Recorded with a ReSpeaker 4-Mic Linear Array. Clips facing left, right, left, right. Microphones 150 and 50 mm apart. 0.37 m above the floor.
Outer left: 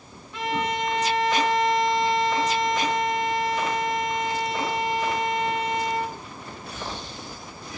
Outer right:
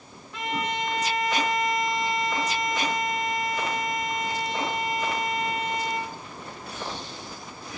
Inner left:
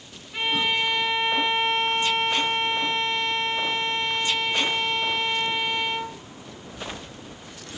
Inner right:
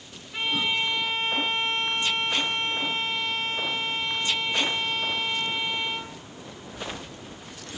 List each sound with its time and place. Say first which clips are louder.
0.3 s a violin: outer left 3 dB, inner left 2 dB; centre (ahead or behind), 5 m